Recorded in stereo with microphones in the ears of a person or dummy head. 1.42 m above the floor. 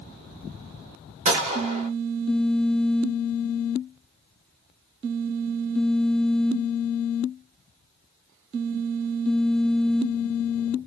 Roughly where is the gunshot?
Right.